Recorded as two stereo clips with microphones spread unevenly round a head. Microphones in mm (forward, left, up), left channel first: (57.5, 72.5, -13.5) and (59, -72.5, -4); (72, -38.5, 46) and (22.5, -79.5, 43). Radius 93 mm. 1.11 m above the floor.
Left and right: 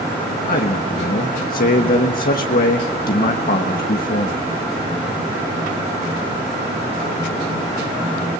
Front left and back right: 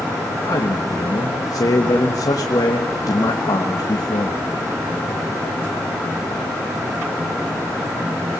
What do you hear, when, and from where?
0.5 s a man speaking: 80° left, 1.3 m